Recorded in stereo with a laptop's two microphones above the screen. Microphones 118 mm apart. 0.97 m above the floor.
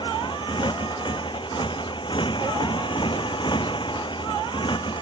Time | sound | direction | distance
0.0 | a motorcycle | 45° left (ahead or behind) | ?